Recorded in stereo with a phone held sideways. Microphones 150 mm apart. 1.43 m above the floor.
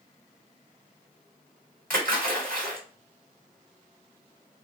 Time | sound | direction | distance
1.9 | a splash | 75° right (ahead or behind) | 1.9 m